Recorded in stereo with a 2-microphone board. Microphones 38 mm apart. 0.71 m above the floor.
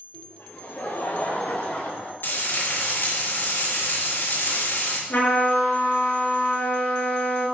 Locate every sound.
0.1 s laughter: 75° left (ahead or behind), 2.5 m; by 2.1 s 50° left (ahead or behind), 3 m
2.2 s frying: 80° left, 4 m
5.1 s a trumpet: 70° left (ahead or behind), 6 m